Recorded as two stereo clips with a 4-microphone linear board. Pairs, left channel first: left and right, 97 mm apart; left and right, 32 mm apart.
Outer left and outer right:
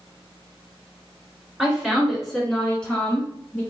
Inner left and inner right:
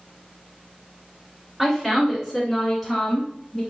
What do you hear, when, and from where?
1.6 s a woman speaking: 5° right (ahead or behind), 1.9 m; by 3.6 s 20° left (ahead or behind), 1.6 m